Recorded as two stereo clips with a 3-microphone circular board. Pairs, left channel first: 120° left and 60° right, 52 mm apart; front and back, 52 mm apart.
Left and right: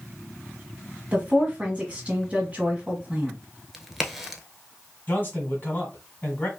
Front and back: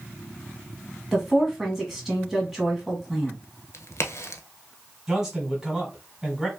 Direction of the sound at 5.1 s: 110° left.